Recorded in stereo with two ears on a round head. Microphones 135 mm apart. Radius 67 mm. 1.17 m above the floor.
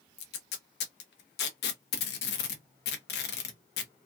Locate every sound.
0.2 s tape being pulled: 80° left, 0.7 m